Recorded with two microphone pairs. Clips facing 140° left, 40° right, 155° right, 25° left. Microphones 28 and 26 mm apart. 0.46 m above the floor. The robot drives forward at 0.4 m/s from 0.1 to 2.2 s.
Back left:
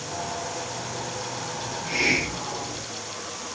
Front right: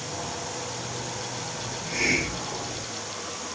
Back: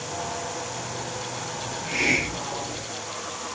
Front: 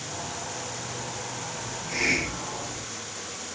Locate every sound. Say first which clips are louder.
1.6 s a hiss: back left 3 dB, back 2 dB; straight behind, 3 m